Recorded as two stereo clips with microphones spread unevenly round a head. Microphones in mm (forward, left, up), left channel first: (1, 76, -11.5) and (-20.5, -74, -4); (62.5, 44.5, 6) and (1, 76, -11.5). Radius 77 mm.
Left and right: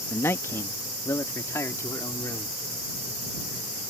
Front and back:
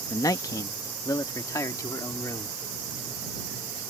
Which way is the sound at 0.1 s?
5° left.